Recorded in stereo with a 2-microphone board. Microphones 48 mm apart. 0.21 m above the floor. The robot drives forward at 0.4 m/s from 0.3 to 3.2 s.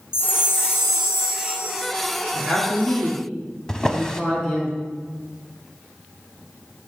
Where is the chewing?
I don't hear chewing.